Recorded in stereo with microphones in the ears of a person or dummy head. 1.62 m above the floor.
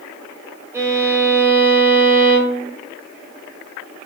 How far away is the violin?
About 1.0 m.